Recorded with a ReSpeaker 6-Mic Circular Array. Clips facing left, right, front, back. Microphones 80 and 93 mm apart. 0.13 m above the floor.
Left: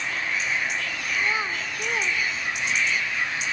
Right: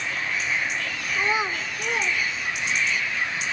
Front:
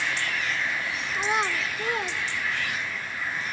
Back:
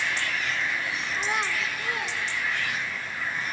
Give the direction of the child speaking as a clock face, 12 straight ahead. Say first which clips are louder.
Right 2 dB, front 3 dB; 2 o'clock.